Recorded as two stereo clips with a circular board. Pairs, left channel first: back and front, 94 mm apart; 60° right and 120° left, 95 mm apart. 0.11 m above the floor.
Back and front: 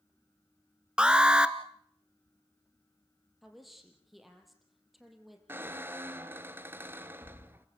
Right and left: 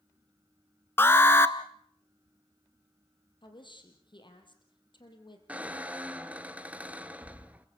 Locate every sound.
1.0 s an alarm: 65° right, 1.0 m
3.4 s a woman speaking: 90° right, 4 m
5.5 s a squeak: 55° left, 0.9 m